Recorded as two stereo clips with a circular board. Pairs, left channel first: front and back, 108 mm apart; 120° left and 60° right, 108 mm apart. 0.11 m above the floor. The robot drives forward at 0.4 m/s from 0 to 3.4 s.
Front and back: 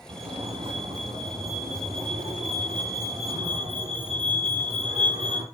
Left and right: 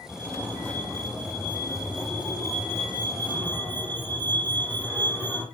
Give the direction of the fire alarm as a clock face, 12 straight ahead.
6 o'clock.